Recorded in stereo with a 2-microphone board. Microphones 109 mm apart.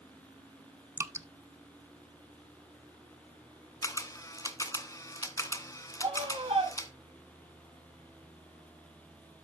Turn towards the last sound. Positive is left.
turn(degrees=-55)  # may be behind; listen again after turning